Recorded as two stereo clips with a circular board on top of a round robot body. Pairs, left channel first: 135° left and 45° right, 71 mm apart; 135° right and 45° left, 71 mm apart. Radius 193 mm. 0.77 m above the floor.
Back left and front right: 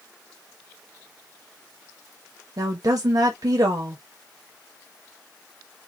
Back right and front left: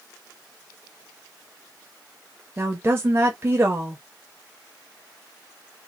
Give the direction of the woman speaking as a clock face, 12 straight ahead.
12 o'clock.